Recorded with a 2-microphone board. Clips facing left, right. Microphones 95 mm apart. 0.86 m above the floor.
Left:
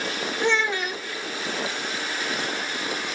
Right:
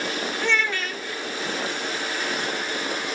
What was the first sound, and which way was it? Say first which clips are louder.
A child speaking: left 3 dB; 20° left (ahead or behind).